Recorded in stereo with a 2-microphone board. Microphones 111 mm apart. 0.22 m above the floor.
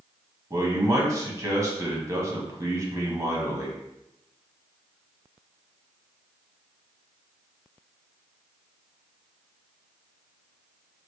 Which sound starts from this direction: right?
A man speaking, at 0.5 s.